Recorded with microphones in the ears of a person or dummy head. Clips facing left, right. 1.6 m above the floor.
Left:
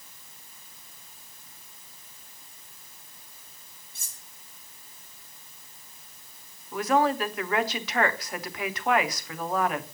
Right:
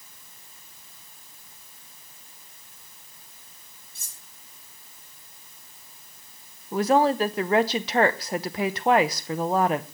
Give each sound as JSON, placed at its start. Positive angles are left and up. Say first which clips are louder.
{"t": 4.0, "sound": "cutlery clinking", "louder": "even", "side_deg": 55, "distance_m": 2.5}
{"t": 6.7, "sound": "a woman speaking", "louder": "right 4 dB", "side_deg": -30, "distance_m": 0.9}